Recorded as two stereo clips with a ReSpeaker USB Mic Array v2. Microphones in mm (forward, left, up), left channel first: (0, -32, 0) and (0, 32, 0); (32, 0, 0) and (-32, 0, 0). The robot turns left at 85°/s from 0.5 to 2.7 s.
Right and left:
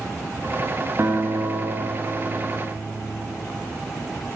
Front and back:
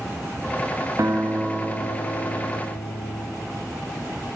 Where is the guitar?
145° left, 4.5 m; by 3.3 s straight ahead, 4.5 m.